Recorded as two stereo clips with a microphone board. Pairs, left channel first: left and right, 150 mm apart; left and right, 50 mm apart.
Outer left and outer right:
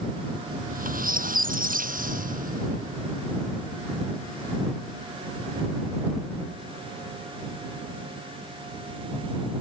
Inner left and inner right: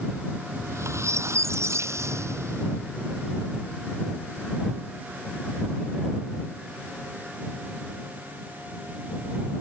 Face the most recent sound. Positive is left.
turn(degrees=-70)  # may be behind; listen again after turning